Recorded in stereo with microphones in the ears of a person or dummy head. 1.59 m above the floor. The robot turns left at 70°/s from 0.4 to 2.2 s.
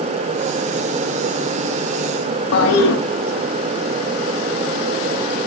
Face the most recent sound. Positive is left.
turn(degrees=75)  # may be behind; listen again after turning